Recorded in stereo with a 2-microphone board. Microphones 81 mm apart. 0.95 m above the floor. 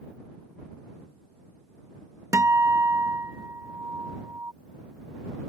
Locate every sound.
2.3 s a guitar: 40° right (ahead or behind)